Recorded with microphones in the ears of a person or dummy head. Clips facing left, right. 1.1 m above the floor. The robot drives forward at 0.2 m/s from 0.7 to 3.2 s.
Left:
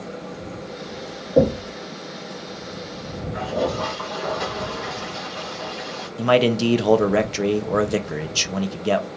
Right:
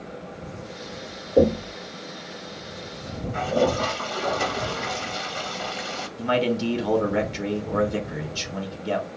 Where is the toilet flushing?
35° right (ahead or behind), 0.8 m.